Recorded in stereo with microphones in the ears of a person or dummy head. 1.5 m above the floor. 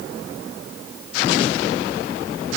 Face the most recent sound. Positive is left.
No sound to turn to.